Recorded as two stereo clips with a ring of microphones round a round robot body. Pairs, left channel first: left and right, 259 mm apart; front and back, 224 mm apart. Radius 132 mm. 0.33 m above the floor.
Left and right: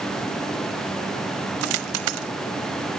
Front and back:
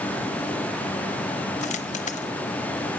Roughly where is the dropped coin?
Ahead right.